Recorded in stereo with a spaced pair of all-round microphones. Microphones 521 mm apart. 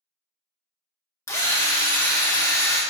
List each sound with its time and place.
1.3 s a drill: 5° left (ahead or behind), 1.0 m